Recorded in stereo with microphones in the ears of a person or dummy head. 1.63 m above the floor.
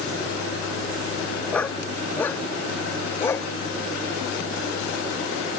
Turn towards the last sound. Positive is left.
turn(degrees=15)  # may be behind; listen again after turning